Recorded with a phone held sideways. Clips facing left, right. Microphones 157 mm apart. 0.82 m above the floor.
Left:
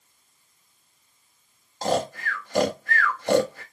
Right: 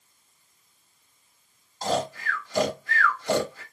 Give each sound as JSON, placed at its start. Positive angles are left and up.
{"t": 1.8, "sound": "snoring", "side_deg": 60, "distance_m": 1.1}